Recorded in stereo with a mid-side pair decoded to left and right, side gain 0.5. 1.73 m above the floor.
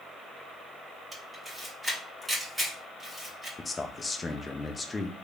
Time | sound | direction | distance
1.1 | a camera shutter | 10° right | 2.5 m
3.6 | a man speaking | 20° left | 0.8 m